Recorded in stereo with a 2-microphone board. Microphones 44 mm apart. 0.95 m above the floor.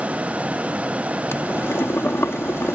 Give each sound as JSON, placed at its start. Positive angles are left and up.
{"t": 1.3, "sound": "boiling", "side_deg": 70}